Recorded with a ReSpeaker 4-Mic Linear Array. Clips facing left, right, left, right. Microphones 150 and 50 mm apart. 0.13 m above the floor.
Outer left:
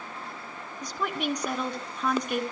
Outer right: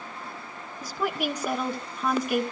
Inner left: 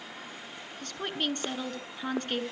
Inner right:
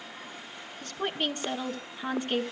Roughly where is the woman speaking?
Centre.